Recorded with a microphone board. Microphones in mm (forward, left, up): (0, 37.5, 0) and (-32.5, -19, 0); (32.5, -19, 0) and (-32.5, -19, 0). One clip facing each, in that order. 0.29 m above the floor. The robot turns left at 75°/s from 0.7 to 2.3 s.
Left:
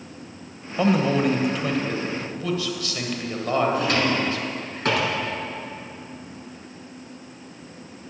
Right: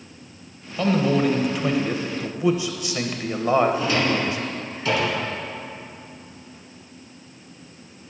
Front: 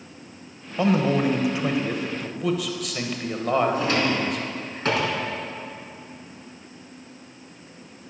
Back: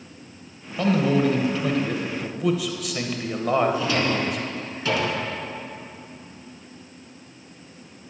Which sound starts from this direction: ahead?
A man speaking, at 0.8 s.